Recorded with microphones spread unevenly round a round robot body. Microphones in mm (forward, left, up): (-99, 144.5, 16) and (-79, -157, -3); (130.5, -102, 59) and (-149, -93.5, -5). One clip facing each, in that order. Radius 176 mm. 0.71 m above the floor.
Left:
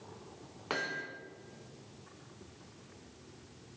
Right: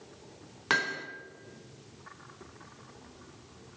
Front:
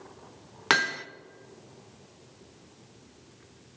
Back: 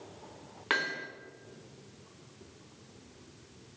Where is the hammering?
20° right, 0.8 m.